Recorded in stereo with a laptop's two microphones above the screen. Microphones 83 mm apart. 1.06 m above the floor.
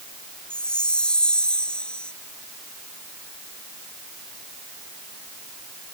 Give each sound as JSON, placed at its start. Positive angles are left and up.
{"t": 0.5, "sound": "a chime", "side_deg": 10}